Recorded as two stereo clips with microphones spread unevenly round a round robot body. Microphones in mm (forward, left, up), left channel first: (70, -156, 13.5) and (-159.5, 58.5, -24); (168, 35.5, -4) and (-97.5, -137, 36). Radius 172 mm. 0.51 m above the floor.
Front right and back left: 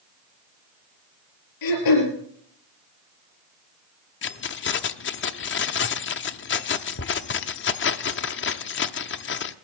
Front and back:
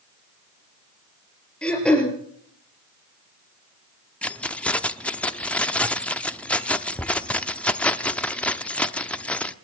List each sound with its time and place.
1.6 s throat clearing: 55° right, 4.5 m
4.2 s keys jangling: 35° right, 0.8 m